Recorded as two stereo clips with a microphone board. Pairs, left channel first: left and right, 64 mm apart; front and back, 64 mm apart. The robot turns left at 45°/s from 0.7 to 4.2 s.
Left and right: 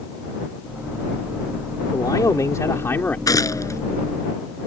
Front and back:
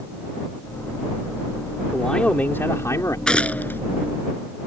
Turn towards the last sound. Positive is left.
turn(degrees=35)